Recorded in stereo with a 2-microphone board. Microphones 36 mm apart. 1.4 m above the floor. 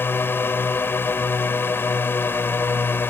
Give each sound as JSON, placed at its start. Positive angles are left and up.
{"t": 0.0, "sound": "a drone", "side_deg": 80}